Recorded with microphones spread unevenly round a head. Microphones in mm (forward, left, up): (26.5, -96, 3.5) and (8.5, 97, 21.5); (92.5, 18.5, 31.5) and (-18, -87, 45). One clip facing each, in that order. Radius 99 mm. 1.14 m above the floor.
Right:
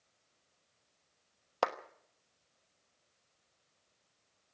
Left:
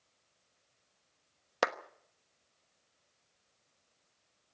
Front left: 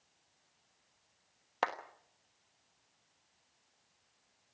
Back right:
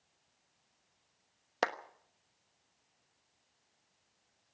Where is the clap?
165° left, 1.1 m.